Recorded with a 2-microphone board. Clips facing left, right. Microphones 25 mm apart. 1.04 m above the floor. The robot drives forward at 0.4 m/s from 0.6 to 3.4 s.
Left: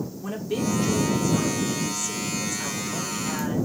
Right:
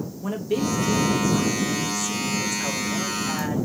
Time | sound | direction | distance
0.2 | a woman speaking | 10° right (ahead or behind) | 1.0 m